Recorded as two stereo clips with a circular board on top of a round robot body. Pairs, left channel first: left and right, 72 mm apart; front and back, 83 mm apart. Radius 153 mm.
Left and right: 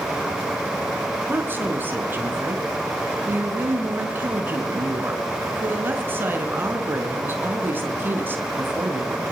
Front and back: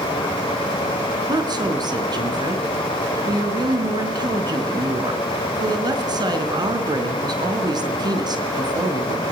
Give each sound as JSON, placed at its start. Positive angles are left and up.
{"t": 1.3, "sound": "a woman speaking", "azimuth_deg": -150, "distance_m": 4.5}